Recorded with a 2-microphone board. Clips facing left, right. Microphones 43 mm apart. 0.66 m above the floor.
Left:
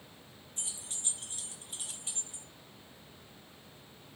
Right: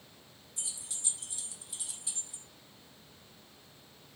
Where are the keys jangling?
40° left (ahead or behind), 0.6 m.